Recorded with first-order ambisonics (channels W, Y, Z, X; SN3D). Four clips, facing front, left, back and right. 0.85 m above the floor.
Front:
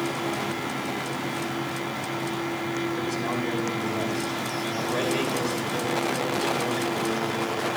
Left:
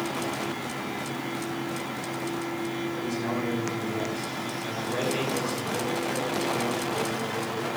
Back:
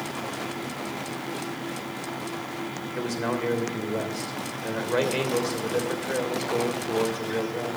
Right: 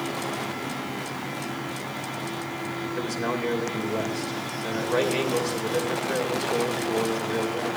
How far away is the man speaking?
About 2.5 m.